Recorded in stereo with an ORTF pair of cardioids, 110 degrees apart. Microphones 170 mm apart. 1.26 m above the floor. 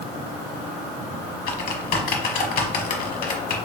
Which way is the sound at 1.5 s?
50° left.